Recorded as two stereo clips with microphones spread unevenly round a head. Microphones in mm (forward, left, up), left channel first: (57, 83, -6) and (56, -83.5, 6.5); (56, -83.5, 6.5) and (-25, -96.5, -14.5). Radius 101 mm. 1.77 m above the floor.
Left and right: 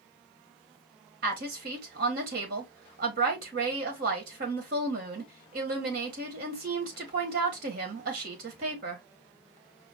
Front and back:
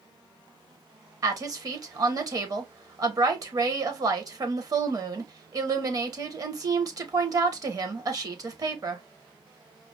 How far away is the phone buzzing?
No phone buzzing in this recording.